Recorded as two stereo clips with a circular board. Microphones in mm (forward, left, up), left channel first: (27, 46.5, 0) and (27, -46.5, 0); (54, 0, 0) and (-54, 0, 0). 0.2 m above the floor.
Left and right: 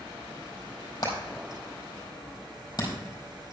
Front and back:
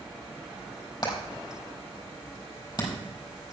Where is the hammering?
45° left, 4.5 m.